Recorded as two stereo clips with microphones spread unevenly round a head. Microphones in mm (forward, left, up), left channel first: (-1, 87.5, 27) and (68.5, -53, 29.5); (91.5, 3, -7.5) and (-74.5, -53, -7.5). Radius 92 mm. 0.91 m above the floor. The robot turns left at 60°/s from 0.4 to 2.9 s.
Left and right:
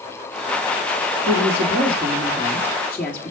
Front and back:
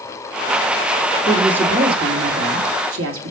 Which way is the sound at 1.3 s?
65° right.